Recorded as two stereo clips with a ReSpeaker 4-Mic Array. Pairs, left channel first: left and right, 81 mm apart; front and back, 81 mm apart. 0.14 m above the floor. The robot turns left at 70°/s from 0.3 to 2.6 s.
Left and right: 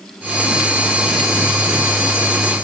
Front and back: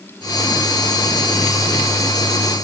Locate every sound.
Only background noise.